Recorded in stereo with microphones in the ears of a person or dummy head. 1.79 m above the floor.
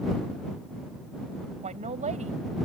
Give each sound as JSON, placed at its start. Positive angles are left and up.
{"t": 1.6, "sound": "a woman speaking", "side_deg": -35}